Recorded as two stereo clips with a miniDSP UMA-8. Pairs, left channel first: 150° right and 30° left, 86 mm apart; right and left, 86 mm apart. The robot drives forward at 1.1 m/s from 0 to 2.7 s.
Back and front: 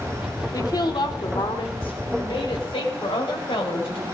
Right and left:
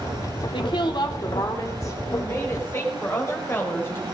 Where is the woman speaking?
105° right, 1.6 m; by 4.0 s 150° right, 3 m.